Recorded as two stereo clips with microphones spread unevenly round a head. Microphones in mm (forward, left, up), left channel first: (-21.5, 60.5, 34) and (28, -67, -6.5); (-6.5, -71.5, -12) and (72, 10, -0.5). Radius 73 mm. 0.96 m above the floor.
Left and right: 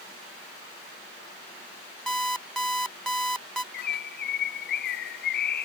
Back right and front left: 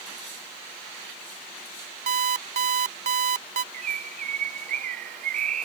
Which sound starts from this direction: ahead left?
An alarm clock, at 2.1 s.